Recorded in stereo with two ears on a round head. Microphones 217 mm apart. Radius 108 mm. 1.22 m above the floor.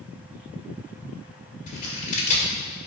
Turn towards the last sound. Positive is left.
turn(degrees=30)  # may be behind; listen again after turning